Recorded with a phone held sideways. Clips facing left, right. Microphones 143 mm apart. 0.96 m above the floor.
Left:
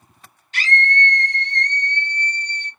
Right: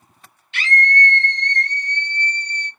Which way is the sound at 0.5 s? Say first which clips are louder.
Right 1 dB; 40° left (ahead or behind).